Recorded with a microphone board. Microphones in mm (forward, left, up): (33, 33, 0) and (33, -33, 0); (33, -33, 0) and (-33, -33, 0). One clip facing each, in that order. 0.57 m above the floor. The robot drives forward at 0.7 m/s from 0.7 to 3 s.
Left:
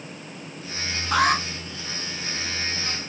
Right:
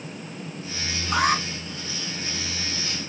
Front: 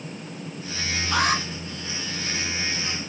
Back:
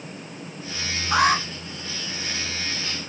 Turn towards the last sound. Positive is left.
turn(degrees=130)